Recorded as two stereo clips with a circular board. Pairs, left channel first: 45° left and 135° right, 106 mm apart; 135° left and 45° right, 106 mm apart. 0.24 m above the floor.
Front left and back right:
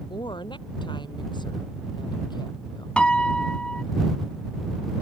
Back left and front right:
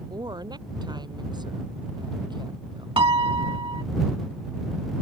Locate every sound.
0.1 s a woman speaking: 5° left; by 2.9 s straight ahead
3.0 s a piano: 30° right